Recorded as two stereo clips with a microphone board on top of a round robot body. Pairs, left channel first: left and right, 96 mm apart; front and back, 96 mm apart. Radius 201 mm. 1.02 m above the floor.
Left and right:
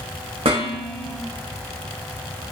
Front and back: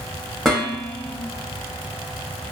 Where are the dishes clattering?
85° right, 1.1 m.